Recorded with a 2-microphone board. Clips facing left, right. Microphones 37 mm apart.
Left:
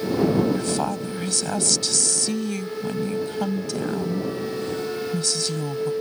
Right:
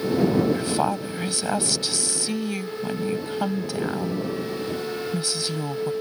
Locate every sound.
0.5 s a woman speaking: 15° right (ahead or behind)